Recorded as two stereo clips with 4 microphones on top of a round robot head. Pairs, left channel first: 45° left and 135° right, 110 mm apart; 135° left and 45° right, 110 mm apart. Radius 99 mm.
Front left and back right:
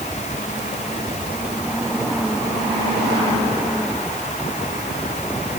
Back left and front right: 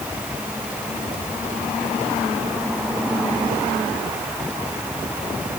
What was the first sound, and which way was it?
Only background noise.